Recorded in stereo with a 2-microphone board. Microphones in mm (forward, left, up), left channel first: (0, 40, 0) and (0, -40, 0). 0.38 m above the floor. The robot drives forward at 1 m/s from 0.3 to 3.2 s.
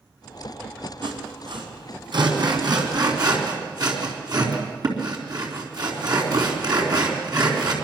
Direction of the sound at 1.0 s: 70° right (ahead or behind).